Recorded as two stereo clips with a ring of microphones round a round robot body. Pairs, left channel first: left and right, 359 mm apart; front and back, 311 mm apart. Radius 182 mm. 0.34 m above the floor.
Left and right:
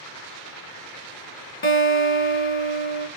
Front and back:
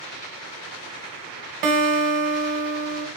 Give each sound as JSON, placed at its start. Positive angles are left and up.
{"t": 1.6, "sound": "a guitar", "azimuth_deg": 155, "distance_m": 0.7}